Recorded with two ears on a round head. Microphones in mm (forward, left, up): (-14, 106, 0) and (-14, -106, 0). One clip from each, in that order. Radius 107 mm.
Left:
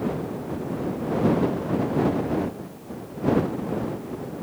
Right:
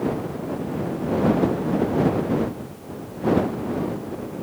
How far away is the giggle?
I don't hear a giggle.